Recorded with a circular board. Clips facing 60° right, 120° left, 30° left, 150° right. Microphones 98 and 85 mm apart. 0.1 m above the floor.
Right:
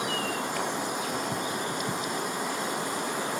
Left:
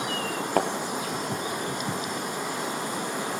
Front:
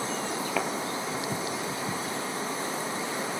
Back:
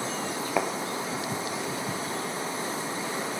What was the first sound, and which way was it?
A thud, 140° left.